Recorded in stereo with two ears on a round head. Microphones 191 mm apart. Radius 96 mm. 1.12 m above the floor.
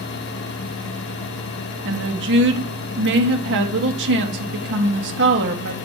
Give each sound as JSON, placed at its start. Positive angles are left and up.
{"t": 1.9, "sound": "a woman speaking", "side_deg": -55, "distance_m": 1.7}